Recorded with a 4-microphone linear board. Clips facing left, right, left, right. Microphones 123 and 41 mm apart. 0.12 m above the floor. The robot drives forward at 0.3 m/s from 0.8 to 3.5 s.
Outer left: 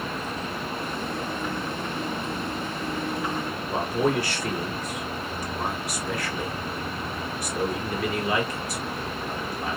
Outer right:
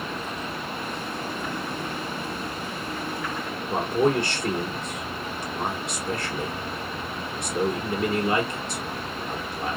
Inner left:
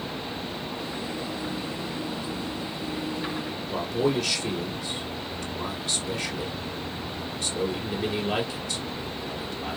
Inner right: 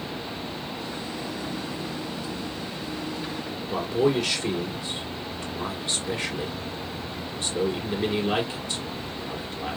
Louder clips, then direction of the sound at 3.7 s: Outer right 2 dB, inner right 2 dB; 25° right (ahead or behind).